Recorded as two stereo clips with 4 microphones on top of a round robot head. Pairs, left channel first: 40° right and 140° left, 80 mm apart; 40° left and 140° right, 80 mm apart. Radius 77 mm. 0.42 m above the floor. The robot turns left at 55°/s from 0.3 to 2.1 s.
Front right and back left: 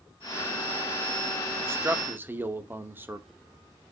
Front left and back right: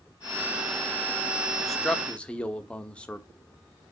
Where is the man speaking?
130° left, 1.2 m; by 3.3 s 105° left, 1.2 m.